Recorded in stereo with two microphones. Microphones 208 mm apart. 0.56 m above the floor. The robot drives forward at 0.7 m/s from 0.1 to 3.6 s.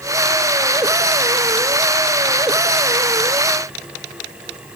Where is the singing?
I don't hear singing.